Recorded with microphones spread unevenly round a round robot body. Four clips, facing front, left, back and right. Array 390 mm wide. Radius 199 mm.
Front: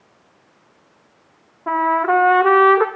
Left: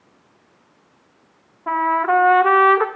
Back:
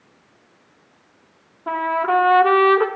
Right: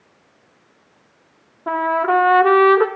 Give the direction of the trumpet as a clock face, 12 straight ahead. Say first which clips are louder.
Even, front 3 dB; 2 o'clock.